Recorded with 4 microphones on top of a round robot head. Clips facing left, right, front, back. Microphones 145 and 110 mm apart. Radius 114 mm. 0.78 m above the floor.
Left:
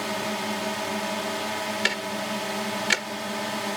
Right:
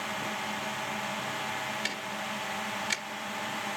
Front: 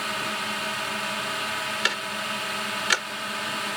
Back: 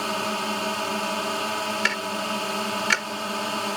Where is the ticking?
75° left.